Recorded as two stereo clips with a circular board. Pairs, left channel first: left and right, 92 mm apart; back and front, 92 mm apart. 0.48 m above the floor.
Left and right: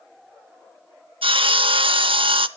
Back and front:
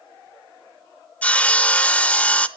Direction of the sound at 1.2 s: 105° right.